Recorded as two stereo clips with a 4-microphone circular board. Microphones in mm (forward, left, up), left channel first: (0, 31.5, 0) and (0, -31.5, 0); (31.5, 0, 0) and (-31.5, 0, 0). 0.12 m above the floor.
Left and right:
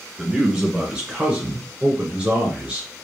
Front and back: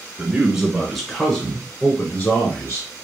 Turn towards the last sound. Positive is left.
turn(degrees=-30)